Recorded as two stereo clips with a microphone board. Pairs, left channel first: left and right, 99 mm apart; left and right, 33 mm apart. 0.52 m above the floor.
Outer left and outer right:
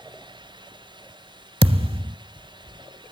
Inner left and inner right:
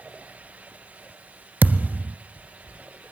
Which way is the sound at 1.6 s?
70° right (ahead or behind).